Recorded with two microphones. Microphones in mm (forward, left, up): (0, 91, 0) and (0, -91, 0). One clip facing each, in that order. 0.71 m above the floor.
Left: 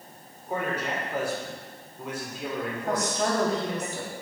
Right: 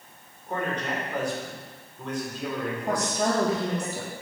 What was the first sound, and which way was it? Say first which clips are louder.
A man speaking: even; 10° left (ahead or behind).